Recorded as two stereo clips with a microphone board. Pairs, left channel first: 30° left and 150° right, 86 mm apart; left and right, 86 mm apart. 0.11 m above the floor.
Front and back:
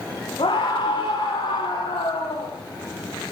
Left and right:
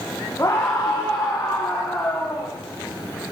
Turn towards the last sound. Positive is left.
turn(degrees=15)